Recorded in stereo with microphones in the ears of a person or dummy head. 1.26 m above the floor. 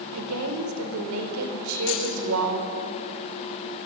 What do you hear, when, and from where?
0.1 s a woman speaking: 75° right (ahead or behind), 3.5 m
1.9 s keys jangling: 65° left (ahead or behind), 5.5 m